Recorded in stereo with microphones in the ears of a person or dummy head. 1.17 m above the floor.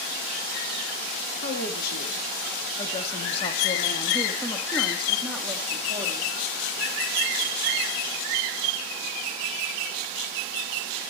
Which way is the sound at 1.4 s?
60° left (ahead or behind).